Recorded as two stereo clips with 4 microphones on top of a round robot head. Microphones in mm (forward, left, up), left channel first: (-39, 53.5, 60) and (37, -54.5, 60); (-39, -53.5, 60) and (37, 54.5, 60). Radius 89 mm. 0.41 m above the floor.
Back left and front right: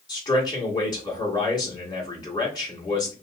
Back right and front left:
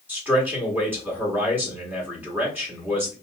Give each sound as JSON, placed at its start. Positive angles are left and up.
{"t": 0.1, "sound": "a man speaking", "azimuth_deg": 120, "distance_m": 1.4}